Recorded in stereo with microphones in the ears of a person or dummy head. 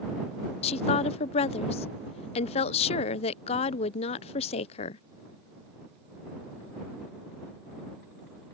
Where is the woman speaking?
35° left (ahead or behind).